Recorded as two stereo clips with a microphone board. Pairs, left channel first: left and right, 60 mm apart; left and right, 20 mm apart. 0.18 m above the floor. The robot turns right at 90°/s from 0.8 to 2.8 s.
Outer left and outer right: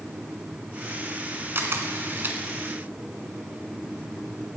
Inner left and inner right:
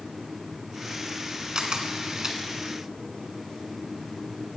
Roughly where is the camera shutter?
Behind right.